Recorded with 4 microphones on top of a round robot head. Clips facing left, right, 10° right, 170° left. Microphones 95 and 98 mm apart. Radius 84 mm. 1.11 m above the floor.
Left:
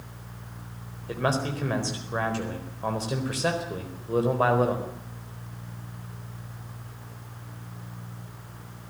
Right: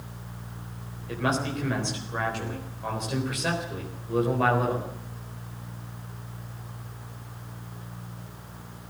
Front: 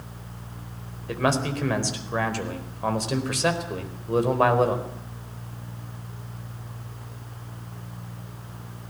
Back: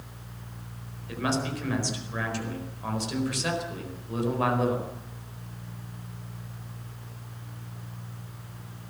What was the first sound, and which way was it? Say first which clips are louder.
A man speaking: left 1 dB, front 5 dB; 25° left.